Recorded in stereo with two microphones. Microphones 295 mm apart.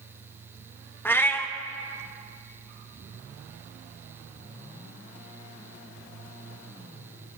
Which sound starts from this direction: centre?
A cat meowing, at 1.1 s.